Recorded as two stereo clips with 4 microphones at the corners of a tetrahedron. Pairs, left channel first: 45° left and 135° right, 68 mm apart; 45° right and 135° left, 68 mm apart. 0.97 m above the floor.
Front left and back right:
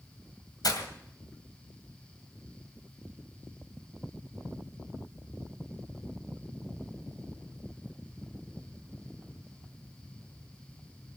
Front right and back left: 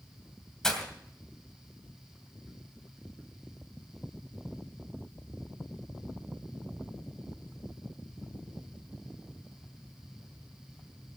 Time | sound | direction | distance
0.6 | breaking glass | 35° left | 2.5 m